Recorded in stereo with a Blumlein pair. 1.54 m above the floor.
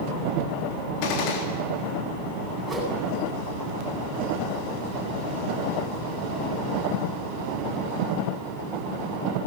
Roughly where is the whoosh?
Ahead.